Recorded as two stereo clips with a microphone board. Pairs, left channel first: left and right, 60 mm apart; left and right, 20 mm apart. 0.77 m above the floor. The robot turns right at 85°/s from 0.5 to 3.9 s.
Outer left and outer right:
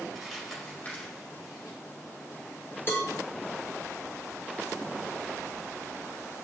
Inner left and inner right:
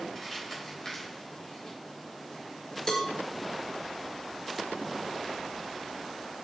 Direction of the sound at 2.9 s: 40° left (ahead or behind).